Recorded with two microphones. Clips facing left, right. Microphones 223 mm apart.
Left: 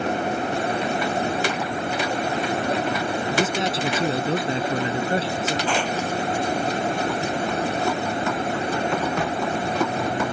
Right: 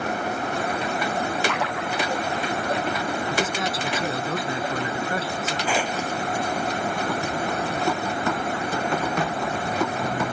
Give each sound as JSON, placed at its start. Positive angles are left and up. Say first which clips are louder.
{"t": 1.5, "sound": "a splash", "louder": "left 2 dB", "side_deg": -85}
{"t": 3.3, "sound": "a man speaking", "louder": "left 3 dB", "side_deg": 30}
{"t": 5.7, "sound": "tearing paper", "louder": "right 2 dB", "side_deg": -10}